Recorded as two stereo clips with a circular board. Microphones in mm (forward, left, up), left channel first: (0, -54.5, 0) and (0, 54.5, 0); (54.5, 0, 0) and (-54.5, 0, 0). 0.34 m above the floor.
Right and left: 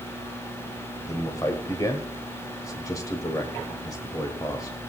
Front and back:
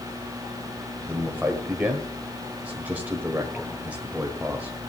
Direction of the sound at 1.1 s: 115° right.